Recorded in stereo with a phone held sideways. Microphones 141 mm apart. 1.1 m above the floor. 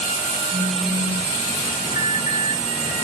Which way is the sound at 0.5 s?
70° right (ahead or behind).